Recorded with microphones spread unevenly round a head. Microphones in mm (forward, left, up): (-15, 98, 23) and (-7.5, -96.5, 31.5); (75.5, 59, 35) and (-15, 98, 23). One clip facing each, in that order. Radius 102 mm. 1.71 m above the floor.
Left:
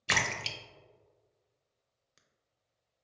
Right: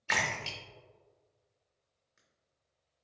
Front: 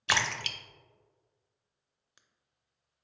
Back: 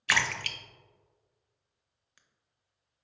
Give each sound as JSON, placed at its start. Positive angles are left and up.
{"t": 0.1, "sound": "a splash", "azimuth_deg": 45, "distance_m": 0.5}